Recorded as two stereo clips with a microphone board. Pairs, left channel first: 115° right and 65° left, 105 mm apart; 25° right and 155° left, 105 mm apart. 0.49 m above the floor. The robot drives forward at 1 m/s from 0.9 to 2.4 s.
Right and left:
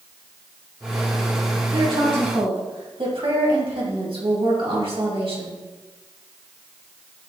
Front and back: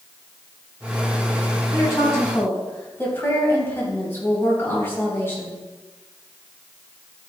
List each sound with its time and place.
1.7 s a woman speaking: 35° left, 3.5 m; by 5.6 s 45° left, 3 m